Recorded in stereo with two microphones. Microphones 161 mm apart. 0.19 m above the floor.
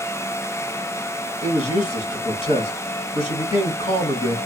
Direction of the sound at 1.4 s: 35° left (ahead or behind).